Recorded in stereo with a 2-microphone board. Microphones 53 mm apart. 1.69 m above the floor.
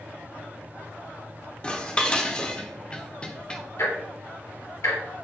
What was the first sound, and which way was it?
Dishes clattering, 15° left (ahead or behind).